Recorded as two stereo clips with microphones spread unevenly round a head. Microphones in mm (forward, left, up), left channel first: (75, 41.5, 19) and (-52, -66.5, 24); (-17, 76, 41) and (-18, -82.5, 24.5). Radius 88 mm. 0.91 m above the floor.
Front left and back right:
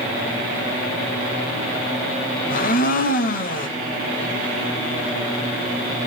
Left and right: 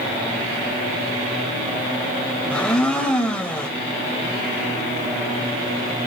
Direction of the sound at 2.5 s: 10° left.